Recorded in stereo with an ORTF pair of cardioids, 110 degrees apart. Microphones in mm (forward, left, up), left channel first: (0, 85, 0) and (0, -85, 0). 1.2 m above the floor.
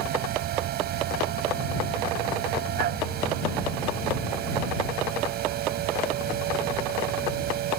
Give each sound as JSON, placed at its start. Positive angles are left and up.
{"t": 0.0, "sound": "a machine running", "azimuth_deg": -70}